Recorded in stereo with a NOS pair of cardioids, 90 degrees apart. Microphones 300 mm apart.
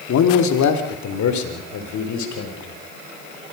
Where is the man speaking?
65° left, 2.5 m; by 2.8 s 70° left, 5.5 m.